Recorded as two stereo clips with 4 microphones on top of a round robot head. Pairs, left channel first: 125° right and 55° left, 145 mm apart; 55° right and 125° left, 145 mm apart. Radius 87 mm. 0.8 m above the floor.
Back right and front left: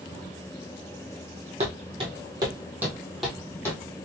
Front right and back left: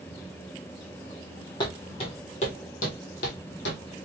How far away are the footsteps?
About 1.5 m.